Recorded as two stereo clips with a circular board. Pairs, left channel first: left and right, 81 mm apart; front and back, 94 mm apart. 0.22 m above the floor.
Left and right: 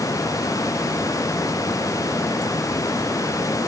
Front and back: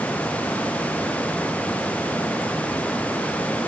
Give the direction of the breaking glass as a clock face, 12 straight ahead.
I don't hear breaking glass.